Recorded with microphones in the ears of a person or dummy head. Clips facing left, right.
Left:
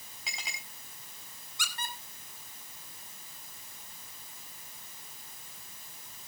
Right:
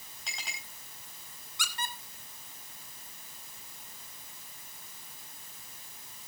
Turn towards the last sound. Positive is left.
turn(degrees=-80)